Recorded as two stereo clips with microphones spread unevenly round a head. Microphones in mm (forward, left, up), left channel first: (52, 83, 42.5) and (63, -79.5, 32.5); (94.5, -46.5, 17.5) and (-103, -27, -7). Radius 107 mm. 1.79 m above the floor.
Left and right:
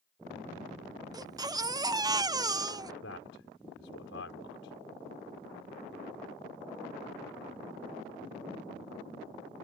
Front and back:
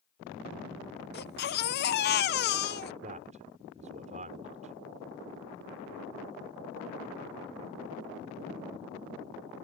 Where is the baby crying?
20° right.